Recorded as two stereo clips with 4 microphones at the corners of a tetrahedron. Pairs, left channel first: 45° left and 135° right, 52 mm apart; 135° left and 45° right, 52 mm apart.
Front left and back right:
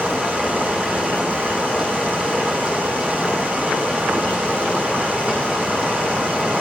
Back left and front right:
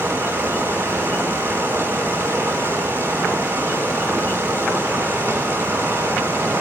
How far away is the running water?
About 2 m.